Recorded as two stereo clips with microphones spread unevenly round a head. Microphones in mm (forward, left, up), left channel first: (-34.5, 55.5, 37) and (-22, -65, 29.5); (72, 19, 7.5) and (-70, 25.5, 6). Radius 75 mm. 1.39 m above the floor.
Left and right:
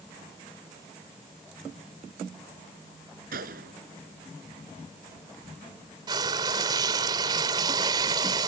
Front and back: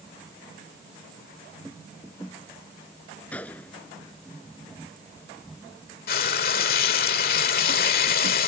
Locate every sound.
3.3 s a gunshot: 85° right
6.1 s frying: 20° right